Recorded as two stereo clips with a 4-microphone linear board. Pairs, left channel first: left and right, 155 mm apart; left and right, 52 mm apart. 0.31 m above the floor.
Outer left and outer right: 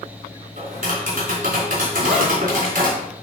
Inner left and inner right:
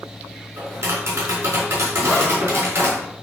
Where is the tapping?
60° right (ahead or behind), 3.5 m.